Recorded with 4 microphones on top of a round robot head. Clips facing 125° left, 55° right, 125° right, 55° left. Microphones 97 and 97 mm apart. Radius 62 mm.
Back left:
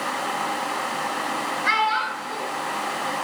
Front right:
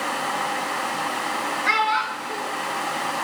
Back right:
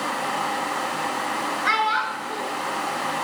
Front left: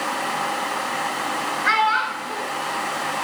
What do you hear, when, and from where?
1.6 s a child speaking: 160° left, 3.5 m